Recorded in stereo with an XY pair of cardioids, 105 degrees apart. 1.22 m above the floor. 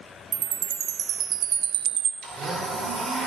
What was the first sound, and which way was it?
A chime, 70° right.